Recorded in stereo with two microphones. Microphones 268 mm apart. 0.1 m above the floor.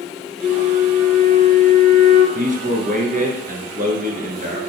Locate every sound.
0.4 s a flute: 5° right (ahead or behind), 1.8 m
2.4 s a man speaking: 30° right (ahead or behind), 1.5 m